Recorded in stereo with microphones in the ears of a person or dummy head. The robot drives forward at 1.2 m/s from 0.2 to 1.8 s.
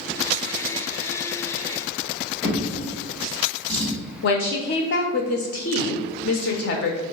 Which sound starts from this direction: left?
A woman speaking, at 4.2 s.